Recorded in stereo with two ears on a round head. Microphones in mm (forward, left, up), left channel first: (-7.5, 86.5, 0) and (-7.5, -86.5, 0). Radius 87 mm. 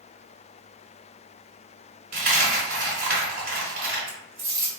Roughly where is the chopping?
I don't hear chopping.